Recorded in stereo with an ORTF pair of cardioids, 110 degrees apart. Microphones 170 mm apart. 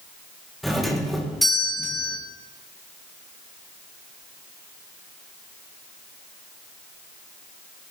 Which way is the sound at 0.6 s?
Straight ahead.